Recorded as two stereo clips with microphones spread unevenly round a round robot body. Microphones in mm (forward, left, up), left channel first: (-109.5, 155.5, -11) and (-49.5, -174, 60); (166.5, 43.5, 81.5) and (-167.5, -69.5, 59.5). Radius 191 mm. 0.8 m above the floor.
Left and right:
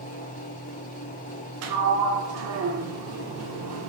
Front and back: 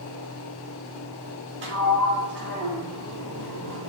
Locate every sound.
1.6 s a sliding door: 105° right, 0.6 m